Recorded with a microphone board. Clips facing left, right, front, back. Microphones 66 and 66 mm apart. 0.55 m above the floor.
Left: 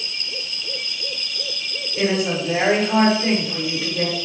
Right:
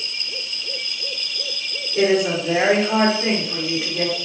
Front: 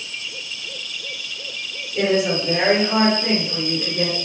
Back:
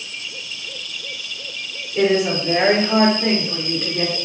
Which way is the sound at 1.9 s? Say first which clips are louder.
Right 3 dB, back 2 dB; 110° right.